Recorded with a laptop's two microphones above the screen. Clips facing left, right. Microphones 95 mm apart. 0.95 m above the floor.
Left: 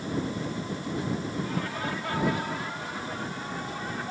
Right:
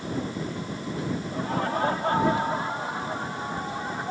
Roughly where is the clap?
I don't hear a clap.